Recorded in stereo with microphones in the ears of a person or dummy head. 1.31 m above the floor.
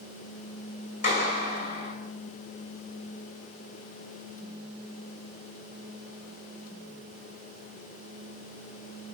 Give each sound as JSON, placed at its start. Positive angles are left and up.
{"t": 1.0, "sound": "a clap", "side_deg": 45, "distance_m": 5.5}